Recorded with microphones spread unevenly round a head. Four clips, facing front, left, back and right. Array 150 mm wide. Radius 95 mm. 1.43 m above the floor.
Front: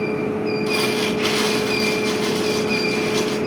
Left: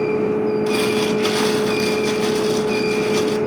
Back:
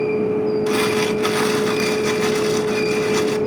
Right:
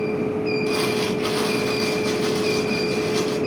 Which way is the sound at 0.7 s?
150° left.